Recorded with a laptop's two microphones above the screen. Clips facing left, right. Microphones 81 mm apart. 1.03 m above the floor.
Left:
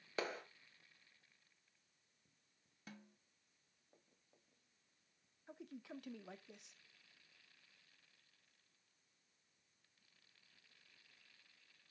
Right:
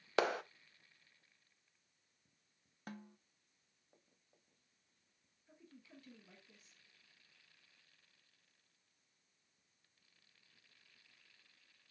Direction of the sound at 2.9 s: 50° right (ahead or behind).